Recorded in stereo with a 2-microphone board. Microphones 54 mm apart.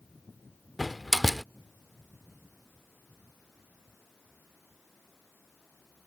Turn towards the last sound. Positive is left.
turn(degrees=0)  # may be behind; listen again after turning